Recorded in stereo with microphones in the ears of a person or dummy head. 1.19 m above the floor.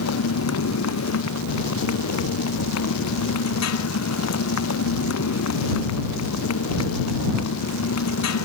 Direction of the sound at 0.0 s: 90° left.